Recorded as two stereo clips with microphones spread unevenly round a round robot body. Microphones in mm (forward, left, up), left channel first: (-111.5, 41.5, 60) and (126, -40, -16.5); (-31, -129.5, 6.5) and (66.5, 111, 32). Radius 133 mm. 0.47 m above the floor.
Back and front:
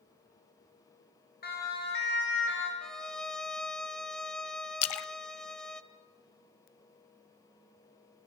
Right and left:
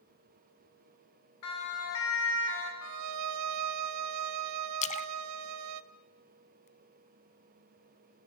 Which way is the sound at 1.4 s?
140° right.